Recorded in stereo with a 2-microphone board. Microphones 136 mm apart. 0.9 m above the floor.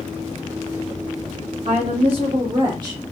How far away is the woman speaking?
About 1.2 m.